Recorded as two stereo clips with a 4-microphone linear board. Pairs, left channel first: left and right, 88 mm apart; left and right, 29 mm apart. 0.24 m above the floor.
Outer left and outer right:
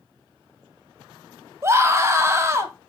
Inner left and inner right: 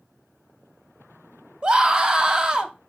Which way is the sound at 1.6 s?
30° right (ahead or behind).